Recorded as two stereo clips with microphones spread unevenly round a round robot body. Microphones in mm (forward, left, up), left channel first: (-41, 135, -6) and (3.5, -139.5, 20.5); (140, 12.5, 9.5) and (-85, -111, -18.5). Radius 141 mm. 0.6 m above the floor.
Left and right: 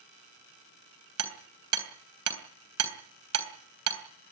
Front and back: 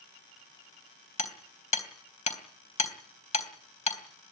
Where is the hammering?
35° right, 3 m.